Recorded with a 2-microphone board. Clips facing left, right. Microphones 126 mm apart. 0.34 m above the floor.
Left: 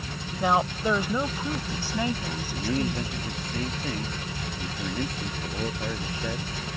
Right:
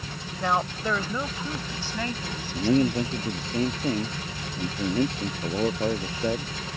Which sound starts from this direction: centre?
A woman speaking, at 0.4 s.